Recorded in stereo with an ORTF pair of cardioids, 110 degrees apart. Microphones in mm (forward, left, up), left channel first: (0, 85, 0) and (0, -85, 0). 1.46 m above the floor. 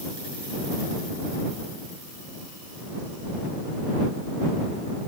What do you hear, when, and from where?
Only background noise.